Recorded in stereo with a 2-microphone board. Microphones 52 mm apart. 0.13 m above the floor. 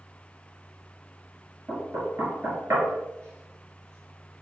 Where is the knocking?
50° right (ahead or behind), 1.6 m.